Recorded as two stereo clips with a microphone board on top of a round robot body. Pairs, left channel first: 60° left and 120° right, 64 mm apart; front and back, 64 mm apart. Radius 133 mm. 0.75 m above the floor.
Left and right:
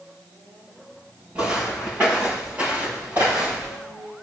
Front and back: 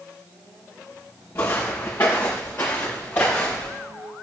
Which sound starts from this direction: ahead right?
Footsteps, at 1.4 s.